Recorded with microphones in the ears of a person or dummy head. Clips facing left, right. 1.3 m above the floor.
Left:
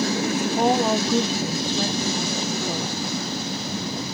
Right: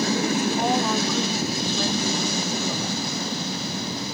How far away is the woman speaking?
About 0.8 m.